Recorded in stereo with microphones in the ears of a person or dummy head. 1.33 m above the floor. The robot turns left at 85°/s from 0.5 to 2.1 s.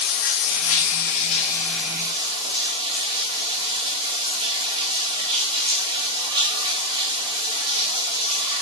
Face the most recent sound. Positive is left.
turn(degrees=-25)